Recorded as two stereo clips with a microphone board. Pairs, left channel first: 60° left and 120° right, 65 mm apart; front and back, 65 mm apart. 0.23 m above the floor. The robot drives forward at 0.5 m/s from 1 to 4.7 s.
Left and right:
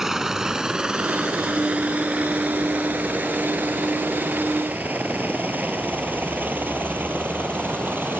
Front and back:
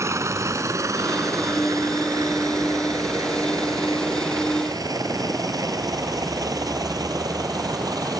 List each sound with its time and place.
0.0 s a helicopter: 160° left; by 8.2 s 175° right